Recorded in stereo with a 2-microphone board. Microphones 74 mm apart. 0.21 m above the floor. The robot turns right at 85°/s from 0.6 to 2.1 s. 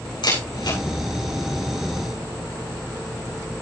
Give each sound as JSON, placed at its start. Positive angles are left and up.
{"t": 0.2, "sound": "a camera shutter", "side_deg": 85, "distance_m": 8.5}